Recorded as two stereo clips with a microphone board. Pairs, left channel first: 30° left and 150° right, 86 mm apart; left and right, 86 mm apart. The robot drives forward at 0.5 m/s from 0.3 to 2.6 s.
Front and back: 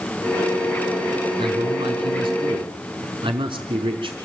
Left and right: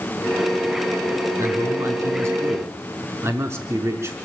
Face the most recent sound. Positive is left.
turn(degrees=-145)